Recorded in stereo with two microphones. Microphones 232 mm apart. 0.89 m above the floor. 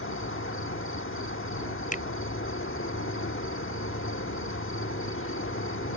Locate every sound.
0.0 s an insect: 60° left (ahead or behind)
1.9 s a finger snap: 35° left (ahead or behind)